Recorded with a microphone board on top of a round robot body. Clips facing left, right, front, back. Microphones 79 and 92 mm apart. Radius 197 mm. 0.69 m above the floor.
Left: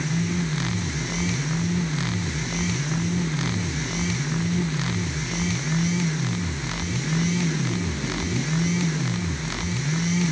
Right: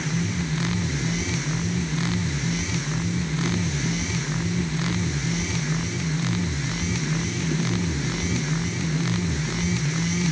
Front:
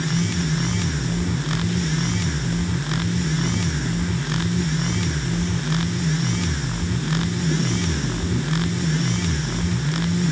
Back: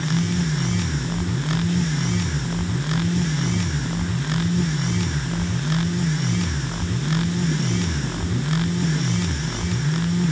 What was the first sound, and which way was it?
Only background noise.